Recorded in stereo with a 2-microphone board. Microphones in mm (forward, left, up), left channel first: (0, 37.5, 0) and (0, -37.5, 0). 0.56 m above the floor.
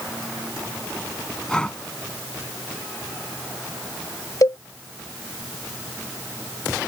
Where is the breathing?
10° left (ahead or behind).